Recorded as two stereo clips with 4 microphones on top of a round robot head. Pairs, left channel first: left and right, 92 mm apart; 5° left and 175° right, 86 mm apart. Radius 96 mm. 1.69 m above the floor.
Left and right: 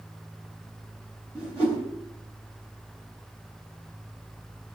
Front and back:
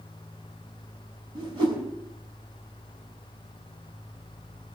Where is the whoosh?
155° left, 5.5 m.